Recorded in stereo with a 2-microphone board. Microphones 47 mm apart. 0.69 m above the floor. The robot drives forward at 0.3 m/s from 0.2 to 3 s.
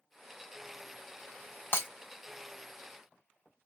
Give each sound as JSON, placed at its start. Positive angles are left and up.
{"t": 1.7, "sound": "breaking glass", "side_deg": 45, "distance_m": 1.2}